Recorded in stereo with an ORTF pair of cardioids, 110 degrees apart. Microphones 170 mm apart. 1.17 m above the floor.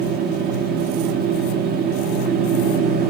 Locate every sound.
0.0 s a machine running: 60° right, 1.2 m